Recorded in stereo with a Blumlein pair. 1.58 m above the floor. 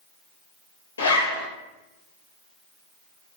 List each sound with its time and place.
1.0 s a zipper: 60° left, 3 m